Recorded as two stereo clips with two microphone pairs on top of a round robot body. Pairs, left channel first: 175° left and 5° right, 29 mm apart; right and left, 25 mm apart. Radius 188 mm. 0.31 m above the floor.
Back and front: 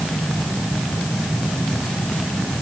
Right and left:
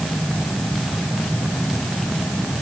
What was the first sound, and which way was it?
Only background noise.